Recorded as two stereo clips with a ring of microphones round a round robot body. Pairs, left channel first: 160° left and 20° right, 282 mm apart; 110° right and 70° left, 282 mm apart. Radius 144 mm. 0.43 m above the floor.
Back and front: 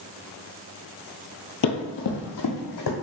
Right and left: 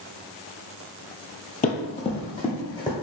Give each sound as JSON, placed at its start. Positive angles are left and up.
{"t": 1.6, "sound": "running footsteps", "azimuth_deg": -170, "distance_m": 0.5}